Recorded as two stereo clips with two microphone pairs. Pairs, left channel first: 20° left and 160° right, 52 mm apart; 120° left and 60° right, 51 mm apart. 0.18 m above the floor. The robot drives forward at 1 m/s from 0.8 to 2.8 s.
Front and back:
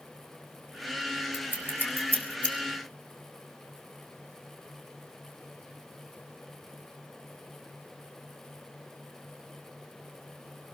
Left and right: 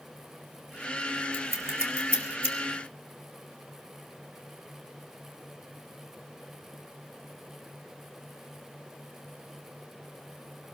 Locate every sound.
1.3 s scissors: 30° right, 2.5 m; by 2.6 s 50° right, 1.7 m